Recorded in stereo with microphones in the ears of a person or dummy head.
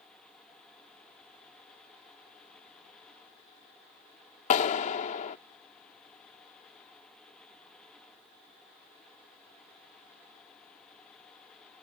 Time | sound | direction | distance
4.5 | a clap | 40° left (ahead or behind) | ?